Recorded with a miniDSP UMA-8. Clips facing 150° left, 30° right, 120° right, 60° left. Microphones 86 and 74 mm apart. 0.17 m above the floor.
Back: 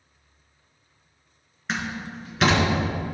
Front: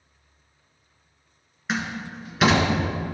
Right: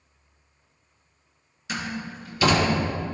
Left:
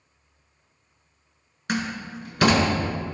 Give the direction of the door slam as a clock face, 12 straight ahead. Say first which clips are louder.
Front 1 dB, left 3 dB; 10 o'clock.